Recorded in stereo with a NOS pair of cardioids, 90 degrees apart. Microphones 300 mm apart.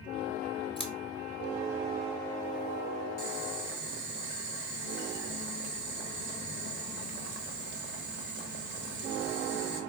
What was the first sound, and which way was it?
Scissors, 15° left.